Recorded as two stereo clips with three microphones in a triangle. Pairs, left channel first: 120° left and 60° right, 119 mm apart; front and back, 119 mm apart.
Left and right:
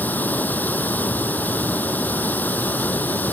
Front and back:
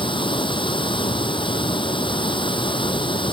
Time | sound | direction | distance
0.0 | running water | 45° left | ?